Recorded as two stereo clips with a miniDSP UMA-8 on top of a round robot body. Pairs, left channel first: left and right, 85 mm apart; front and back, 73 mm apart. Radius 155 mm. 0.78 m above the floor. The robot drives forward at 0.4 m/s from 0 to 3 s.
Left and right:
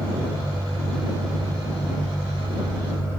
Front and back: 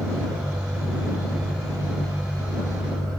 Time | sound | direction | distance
0.0 | an engine running | 145° right | 5.5 m